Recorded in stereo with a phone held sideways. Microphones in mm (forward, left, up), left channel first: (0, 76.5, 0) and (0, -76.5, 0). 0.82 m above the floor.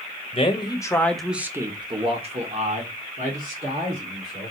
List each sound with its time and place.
0.3 s a man speaking: 40° left (ahead or behind), 1.0 m; by 4.5 s 70° right (ahead or behind), 2.5 m